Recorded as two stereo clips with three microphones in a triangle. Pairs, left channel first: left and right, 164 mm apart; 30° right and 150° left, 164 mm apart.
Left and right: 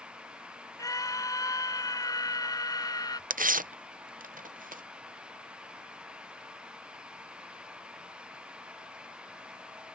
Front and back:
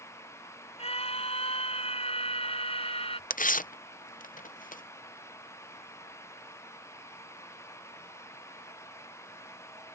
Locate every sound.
0.8 s a scream: 20° left; by 3.2 s 25° left
3.3 s tearing paper: 60° right